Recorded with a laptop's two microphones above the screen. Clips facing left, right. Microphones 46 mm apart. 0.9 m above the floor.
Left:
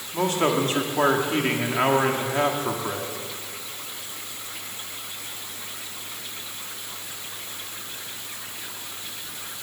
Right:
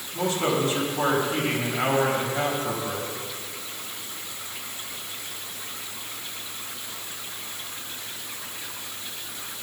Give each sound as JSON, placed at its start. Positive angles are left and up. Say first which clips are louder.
{"t": 0.1, "sound": "a man speaking", "louder": "left 2 dB", "side_deg": 65, "distance_m": 1.7}